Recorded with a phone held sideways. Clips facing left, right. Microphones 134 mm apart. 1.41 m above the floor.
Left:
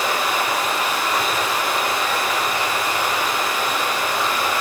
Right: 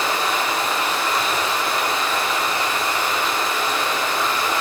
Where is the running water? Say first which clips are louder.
Even; 15° left (ahead or behind), 9 m.